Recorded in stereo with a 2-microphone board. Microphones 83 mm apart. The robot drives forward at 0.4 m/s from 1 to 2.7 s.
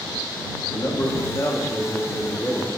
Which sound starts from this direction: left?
A man speaking, at 0.7 s.